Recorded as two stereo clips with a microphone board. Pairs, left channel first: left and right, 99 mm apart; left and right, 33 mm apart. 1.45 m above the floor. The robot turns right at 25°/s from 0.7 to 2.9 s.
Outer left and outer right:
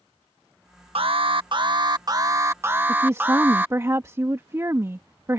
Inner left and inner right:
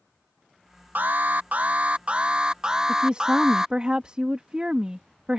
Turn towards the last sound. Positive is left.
turn(degrees=-30)  # may be behind; listen again after turning